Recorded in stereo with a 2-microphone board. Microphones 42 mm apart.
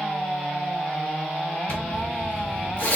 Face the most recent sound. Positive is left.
turn(degrees=50)  # may be behind; listen again after turning